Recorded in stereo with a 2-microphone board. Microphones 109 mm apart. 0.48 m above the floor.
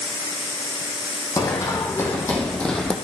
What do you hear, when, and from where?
1.4 s running footsteps: 35° left (ahead or behind), 1.7 m; by 2.9 s 5° left (ahead or behind), 1.4 m